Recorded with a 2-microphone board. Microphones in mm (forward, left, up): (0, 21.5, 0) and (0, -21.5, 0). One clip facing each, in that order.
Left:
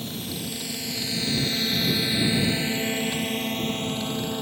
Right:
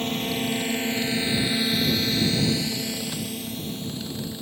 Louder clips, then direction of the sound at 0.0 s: Right 7 dB; 50° right (ahead or behind).